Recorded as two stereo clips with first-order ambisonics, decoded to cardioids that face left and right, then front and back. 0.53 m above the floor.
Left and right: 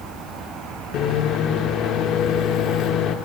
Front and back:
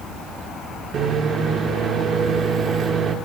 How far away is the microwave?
About 0.7 m.